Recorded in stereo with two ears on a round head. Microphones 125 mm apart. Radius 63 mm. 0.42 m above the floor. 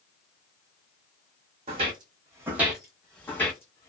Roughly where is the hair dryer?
No hair dryer in this recording.